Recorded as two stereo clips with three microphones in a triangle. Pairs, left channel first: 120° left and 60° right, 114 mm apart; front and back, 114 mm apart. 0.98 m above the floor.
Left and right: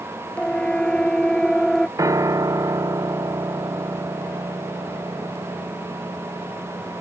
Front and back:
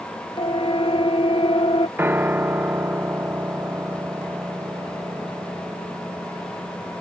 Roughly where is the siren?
Ahead left.